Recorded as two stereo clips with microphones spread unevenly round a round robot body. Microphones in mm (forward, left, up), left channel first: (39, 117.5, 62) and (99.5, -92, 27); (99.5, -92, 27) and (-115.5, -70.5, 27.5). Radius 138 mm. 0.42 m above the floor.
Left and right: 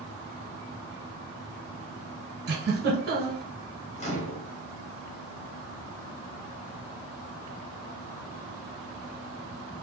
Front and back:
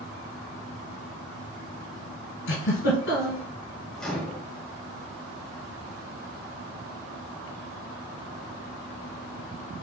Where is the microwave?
75° left, 1.1 m.